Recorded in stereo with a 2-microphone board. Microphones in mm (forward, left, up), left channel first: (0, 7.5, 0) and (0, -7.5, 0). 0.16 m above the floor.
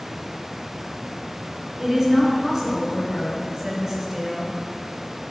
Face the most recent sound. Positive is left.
turn(degrees=-25)  # may be behind; listen again after turning